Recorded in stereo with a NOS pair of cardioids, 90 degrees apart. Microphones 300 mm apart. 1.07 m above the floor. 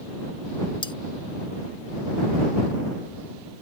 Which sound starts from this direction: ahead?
Cutlery clinking, at 0.8 s.